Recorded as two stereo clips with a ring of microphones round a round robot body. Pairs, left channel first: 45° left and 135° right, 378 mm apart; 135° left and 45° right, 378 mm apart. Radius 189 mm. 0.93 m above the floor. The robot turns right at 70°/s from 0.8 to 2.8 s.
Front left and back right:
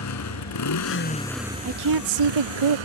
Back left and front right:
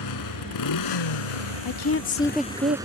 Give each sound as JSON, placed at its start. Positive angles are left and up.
{"t": 0.0, "sound": "a motorcycle", "azimuth_deg": 95}
{"t": 1.6, "sound": "a woman speaking", "azimuth_deg": 175}